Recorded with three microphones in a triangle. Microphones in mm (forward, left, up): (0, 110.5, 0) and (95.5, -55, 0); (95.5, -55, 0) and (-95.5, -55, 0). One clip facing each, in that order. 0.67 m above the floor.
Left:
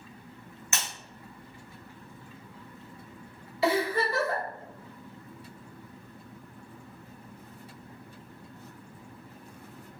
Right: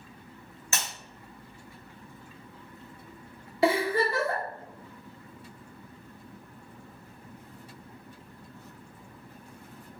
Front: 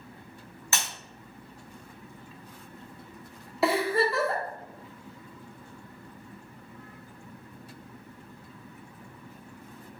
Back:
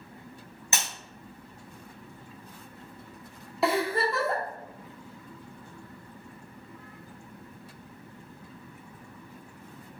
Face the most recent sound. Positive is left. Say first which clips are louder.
# right 2 dB, front 1 dB
turn(degrees=-90)